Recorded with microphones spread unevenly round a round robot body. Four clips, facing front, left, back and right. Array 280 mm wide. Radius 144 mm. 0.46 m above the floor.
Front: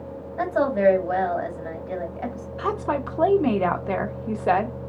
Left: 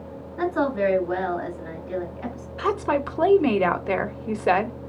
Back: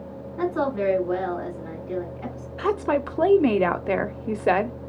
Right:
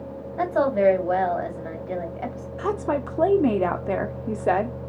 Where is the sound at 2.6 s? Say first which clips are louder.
Left 2 dB, back 2 dB; 175° right, 0.8 m.